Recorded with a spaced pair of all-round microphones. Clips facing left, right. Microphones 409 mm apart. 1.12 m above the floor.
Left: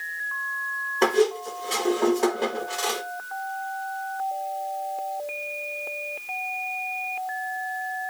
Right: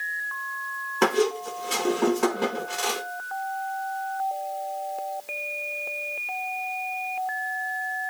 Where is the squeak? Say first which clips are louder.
Left 2 dB; 20° right (ahead or behind), 0.9 m.